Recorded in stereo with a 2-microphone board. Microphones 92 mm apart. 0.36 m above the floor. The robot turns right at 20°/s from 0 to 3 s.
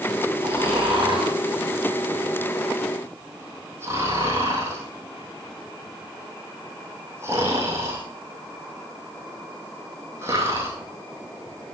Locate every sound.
0.4 s snoring: 80° right, 3 m; by 10.7 s 30° right (ahead or behind), 3 m